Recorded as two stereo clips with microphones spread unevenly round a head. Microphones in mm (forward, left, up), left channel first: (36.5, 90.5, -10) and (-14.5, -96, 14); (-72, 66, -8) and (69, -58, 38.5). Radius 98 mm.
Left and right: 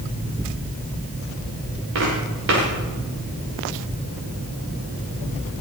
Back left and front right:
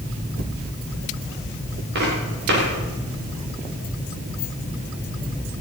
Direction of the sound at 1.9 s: 80° right.